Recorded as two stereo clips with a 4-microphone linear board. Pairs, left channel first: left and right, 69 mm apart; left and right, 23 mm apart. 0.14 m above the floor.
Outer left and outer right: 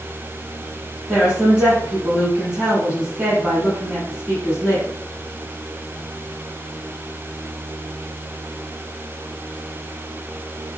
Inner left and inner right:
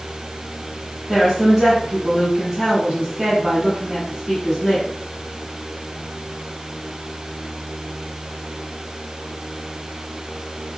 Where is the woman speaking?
15° right (ahead or behind), 1.3 m.